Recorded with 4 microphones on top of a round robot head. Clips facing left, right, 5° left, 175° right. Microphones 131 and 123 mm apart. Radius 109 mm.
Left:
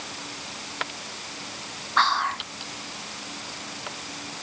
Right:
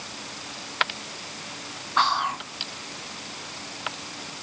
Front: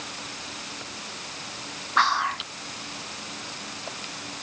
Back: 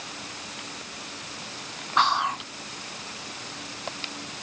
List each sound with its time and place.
2.0 s whispering: 140° right